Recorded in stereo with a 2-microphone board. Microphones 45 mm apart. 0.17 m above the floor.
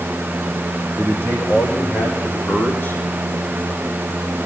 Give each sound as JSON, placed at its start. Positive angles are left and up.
{"t": 1.0, "sound": "a man speaking", "side_deg": 45, "distance_m": 9.5}